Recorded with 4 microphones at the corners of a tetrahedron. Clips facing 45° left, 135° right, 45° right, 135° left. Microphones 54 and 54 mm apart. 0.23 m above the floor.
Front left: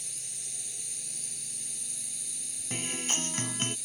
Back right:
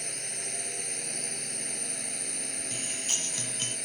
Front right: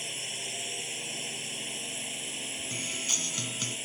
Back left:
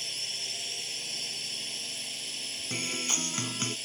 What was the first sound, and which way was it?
A drone, 115° right.